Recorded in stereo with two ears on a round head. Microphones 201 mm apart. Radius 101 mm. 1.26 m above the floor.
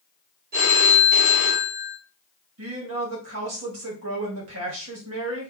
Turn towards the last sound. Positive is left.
turn(degrees=-70)  # may be behind; listen again after turning